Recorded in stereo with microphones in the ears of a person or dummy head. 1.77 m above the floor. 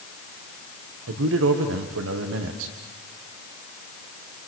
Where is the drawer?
No drawer in this recording.